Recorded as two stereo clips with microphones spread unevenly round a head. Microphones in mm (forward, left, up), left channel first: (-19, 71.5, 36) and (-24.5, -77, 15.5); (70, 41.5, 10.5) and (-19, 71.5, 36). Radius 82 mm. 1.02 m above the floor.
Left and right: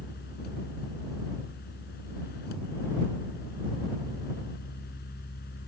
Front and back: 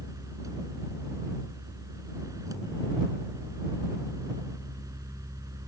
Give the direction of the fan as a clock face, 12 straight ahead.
8 o'clock.